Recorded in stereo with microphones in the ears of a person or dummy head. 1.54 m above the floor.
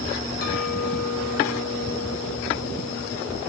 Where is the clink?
55° left (ahead or behind), 2 m.